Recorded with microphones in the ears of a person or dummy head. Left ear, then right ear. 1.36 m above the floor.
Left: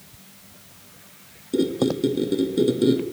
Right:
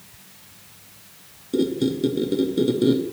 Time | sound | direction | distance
1.5 | a squeak | 5° left (ahead or behind) | 0.5 m